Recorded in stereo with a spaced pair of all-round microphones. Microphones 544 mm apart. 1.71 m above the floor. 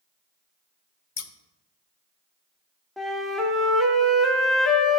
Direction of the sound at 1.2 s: 75° left (ahead or behind).